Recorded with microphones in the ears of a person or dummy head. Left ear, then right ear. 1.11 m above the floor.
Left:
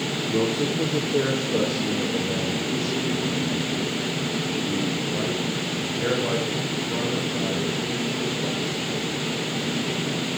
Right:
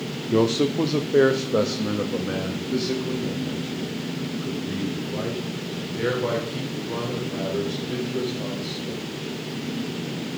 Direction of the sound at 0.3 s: 80° right.